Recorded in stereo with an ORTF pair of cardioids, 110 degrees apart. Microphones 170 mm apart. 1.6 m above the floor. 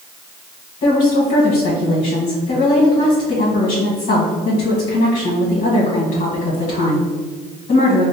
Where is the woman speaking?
50° left, 1.3 m.